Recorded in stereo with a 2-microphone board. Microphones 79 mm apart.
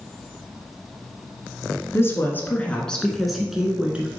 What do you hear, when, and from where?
1.9 s a woman speaking: 30° left (ahead or behind), 1.5 m; by 4.2 s 20° right (ahead or behind), 1.5 m